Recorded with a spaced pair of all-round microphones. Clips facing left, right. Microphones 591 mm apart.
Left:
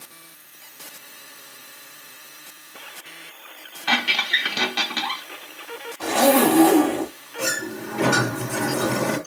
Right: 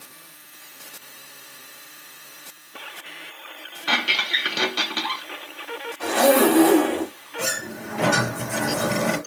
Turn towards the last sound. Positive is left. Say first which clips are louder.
# left 3 dB
turn(degrees=-20)  # may be behind; listen again after turning